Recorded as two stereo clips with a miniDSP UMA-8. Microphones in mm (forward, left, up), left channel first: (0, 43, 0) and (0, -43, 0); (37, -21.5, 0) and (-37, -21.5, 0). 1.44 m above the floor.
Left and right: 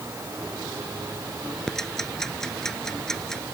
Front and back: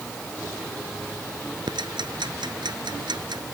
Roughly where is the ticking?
Behind.